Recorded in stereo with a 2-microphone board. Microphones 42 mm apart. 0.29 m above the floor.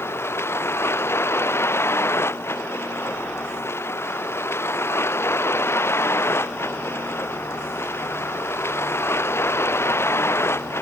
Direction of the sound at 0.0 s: 85° left.